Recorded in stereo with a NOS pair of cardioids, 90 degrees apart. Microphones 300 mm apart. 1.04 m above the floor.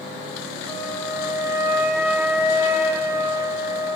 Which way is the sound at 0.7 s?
10° right.